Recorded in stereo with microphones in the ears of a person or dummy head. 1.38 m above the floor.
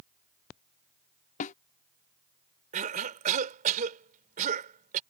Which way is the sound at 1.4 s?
45° left (ahead or behind).